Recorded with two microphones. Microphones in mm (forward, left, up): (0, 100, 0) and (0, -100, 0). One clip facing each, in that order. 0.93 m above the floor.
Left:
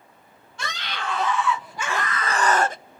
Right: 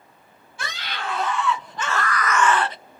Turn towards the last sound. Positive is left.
turn(degrees=50)  # may be behind; listen again after turning